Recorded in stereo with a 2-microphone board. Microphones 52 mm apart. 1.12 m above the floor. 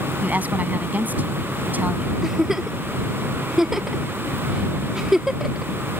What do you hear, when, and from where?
0.2 s a woman speaking: 35° right (ahead or behind)
2.2 s a giggle: 10° right (ahead or behind)